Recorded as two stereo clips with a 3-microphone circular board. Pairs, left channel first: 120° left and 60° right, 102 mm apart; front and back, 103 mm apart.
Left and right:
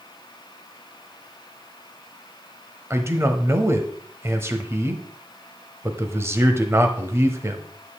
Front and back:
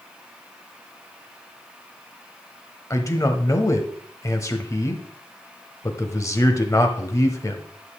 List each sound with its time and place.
2.9 s a man speaking: 25° right, 1.0 m